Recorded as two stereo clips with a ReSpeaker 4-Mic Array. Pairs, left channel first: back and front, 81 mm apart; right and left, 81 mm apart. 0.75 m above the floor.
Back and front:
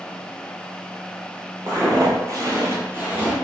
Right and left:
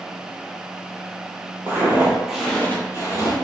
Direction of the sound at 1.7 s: 35° left.